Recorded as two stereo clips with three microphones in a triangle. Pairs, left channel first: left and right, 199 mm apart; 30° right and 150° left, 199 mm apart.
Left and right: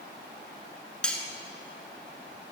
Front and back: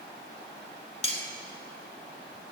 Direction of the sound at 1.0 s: 5° left.